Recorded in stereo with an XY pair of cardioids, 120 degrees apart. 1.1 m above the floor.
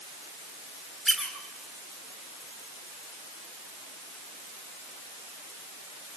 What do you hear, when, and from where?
1.1 s a squeak: 5° left, 10 m